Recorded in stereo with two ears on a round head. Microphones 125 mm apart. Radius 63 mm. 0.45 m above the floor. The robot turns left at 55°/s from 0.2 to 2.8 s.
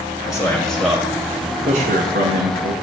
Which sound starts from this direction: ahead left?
A man speaking, at 0.2 s.